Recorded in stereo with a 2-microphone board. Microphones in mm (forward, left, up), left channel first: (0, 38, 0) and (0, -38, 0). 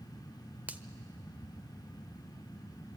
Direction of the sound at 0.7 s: 20° right (ahead or behind).